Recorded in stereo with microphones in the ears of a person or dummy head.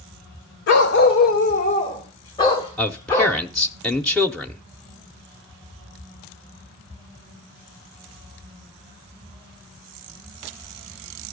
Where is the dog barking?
65° left (ahead or behind), 1.7 m; by 3.4 s 15° left (ahead or behind), 3.5 m.